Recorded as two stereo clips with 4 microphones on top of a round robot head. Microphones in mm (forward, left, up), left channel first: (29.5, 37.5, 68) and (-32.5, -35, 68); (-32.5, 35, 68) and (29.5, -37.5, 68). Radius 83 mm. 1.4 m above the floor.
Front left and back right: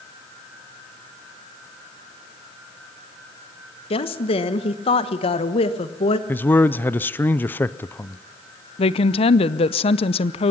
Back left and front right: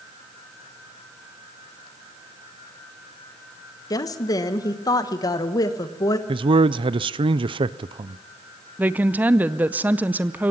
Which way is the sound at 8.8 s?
25° left.